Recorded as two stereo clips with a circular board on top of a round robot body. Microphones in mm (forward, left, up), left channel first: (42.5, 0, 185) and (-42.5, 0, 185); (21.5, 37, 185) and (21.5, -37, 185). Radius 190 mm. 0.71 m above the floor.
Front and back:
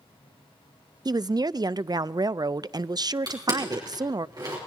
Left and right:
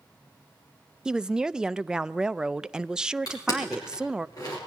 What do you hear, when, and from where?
1.1 s a woman speaking: 170° right, 0.5 m
3.3 s crushing: 135° left, 4 m